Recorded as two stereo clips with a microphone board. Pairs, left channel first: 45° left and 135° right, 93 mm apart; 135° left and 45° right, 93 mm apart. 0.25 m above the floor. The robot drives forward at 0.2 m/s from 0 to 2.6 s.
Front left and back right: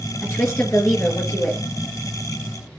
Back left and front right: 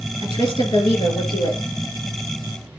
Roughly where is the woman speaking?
Left.